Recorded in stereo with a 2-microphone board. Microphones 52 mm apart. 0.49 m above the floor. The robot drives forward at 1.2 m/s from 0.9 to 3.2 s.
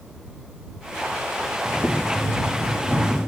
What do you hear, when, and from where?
1.6 s boiling: 40° left (ahead or behind), 1.6 m; by 3.2 s 20° left (ahead or behind), 3 m